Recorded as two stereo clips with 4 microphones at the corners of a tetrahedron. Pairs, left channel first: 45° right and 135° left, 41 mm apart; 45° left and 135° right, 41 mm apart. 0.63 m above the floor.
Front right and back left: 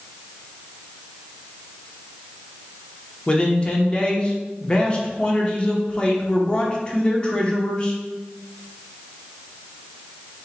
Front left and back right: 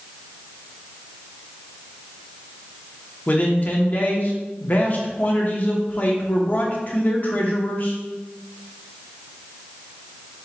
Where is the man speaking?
15° left, 1.0 m.